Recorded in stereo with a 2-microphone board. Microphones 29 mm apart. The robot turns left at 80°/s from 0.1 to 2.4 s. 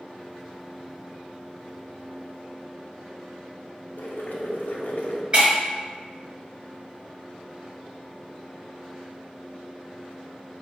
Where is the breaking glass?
35° right (ahead or behind), 1.2 m.